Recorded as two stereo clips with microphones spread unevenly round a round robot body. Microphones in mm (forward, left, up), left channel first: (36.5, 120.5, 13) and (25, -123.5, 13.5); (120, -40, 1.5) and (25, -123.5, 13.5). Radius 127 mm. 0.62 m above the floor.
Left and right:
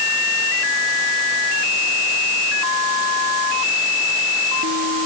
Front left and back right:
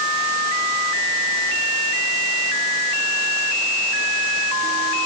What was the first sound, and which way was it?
Only background noise.